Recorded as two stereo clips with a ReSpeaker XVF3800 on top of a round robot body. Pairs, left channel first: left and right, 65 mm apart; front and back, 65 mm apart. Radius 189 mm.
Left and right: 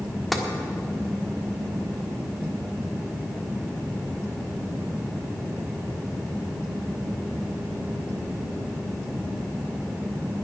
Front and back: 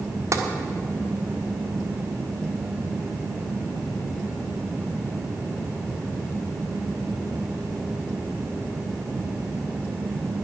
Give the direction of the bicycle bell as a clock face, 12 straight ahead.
No bicycle bell in this recording.